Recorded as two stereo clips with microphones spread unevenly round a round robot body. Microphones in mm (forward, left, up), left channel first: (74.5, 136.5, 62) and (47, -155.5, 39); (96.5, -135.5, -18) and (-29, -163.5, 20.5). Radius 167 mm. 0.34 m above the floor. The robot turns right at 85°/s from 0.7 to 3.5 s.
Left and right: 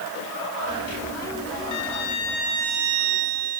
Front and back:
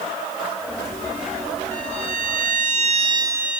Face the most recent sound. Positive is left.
turn(degrees=-85)